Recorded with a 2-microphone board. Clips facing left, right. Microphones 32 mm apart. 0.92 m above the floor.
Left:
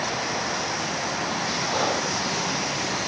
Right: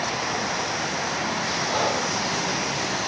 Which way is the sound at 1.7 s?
25° right (ahead or behind).